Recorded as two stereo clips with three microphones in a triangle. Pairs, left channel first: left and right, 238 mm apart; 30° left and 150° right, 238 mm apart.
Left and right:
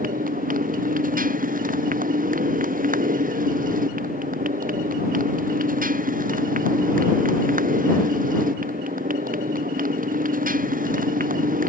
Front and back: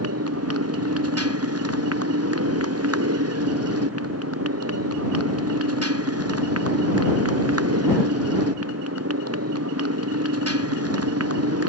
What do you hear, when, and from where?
0.0 s a motorcycle: 145° right